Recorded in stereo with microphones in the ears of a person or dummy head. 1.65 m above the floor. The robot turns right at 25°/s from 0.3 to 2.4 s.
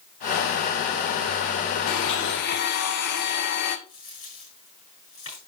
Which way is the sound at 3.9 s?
40° left (ahead or behind).